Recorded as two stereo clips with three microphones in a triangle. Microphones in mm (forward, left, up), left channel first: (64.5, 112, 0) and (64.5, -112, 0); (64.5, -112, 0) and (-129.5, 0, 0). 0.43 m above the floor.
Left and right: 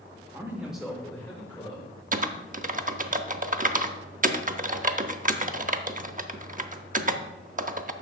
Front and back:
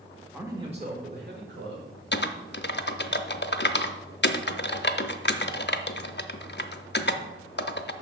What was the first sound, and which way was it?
A man speaking, 135° right.